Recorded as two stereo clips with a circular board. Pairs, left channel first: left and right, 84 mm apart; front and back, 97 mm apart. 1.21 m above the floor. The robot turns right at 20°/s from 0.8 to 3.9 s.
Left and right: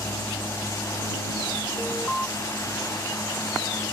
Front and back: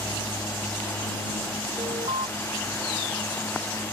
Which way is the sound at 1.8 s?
165° left.